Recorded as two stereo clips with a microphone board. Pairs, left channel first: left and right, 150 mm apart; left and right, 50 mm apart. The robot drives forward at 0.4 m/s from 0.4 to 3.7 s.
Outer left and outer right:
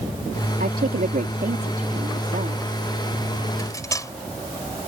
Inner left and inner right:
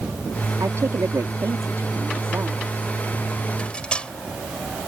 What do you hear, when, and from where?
0.6 s a woman speaking: 85° right; by 2.6 s 75° right (ahead or behind)
3.6 s cutlery clinking: 20° left (ahead or behind)